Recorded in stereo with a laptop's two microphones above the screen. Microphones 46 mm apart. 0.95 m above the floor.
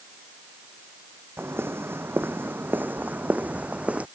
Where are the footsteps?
60° right (ahead or behind); by 4.1 s 25° right (ahead or behind).